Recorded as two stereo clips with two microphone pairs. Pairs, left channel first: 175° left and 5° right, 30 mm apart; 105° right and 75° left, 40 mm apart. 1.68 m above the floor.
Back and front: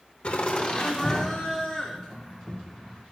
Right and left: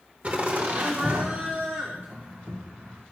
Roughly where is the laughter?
Behind left.